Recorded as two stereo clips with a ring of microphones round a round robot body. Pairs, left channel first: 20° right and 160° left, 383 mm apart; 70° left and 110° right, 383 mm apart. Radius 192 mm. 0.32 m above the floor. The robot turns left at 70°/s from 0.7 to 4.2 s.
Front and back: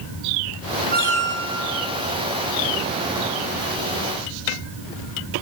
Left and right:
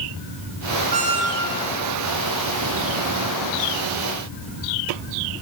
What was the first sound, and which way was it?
A squeak, 135° right.